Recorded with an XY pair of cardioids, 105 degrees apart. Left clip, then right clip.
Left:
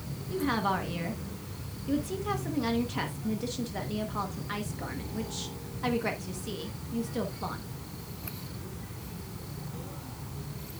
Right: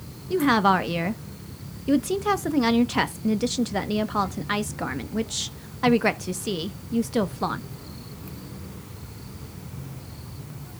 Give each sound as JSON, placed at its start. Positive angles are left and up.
{"t": 0.3, "sound": "a woman speaking", "azimuth_deg": -65, "distance_m": 1.0}